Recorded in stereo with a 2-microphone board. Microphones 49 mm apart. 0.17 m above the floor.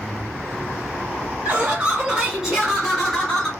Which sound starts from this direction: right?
Laughter, at 1.4 s.